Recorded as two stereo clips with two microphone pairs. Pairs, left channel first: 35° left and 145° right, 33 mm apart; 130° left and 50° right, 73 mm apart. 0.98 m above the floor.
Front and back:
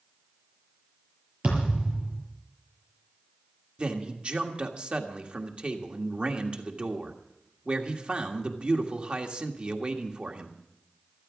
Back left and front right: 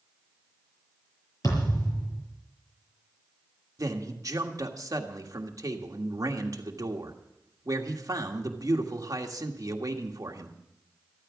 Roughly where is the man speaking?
Right.